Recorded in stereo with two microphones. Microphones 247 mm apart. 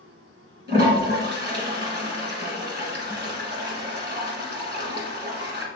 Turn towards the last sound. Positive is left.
turn(degrees=-45)  # may be behind; listen again after turning